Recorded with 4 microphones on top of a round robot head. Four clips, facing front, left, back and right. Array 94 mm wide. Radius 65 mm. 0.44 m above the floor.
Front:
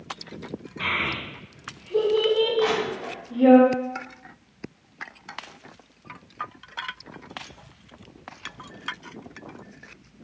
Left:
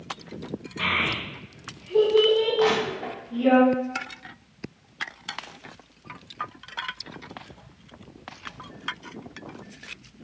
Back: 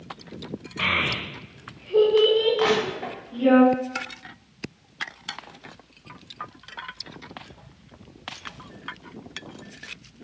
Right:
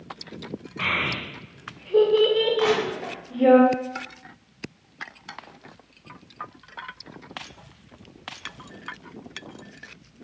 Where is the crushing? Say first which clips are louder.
Even, back 1 dB; 145° right, 1.2 m.